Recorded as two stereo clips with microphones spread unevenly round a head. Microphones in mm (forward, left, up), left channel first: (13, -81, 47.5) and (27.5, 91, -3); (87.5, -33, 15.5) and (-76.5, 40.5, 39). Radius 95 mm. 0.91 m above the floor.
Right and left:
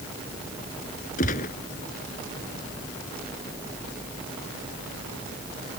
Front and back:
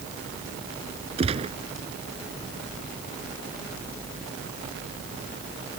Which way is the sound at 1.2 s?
145° right.